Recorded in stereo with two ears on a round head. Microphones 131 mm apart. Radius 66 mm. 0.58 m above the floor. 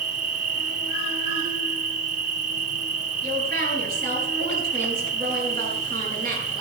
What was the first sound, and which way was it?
An insect, 65° right (ahead or behind).